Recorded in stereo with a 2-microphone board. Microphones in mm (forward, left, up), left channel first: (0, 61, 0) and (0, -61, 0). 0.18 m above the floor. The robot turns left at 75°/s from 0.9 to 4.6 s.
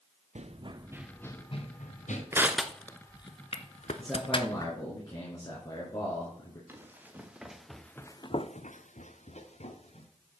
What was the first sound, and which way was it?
Running footsteps, 70° right (ahead or behind).